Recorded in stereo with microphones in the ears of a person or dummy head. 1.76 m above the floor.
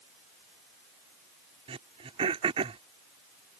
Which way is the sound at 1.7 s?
30° right (ahead or behind).